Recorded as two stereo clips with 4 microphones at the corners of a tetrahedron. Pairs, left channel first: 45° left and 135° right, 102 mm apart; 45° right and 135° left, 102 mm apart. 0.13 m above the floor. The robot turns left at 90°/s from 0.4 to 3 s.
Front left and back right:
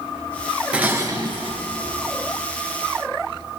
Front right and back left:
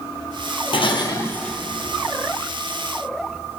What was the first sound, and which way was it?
Dishes clattering, 60° right.